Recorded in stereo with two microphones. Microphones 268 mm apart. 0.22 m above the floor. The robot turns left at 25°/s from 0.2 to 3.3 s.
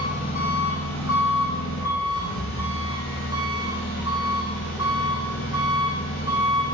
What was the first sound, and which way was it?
An engine running, 135° left.